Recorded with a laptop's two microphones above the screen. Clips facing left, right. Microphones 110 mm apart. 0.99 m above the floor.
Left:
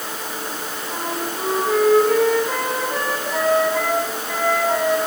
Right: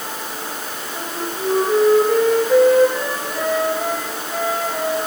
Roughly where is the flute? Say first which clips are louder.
Left 1 dB; left.